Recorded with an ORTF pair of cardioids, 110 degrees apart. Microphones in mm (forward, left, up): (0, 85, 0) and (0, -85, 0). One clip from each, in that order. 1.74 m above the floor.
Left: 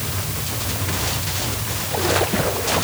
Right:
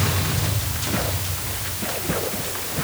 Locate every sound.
Only background noise.